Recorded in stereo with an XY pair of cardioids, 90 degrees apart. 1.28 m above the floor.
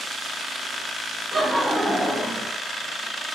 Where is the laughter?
10° right, 1.0 m; by 2.5 s 65° left, 0.5 m.